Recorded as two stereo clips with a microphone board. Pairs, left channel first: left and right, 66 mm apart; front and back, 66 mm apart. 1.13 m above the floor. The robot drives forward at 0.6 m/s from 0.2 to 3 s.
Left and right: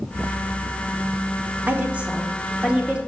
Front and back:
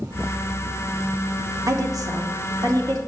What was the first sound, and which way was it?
A woman speaking, 155° right.